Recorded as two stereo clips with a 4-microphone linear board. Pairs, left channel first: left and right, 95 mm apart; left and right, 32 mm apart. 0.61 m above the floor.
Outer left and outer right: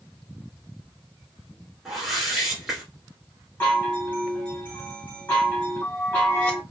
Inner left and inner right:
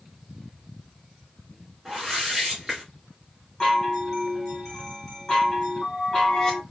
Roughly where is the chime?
Centre.